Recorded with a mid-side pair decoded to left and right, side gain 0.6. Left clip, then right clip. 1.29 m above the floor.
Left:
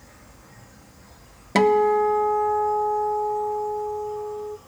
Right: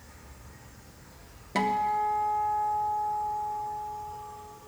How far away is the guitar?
About 0.6 m.